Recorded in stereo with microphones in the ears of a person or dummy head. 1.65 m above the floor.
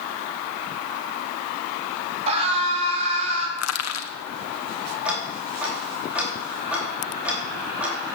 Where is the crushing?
85° left, 1.3 m.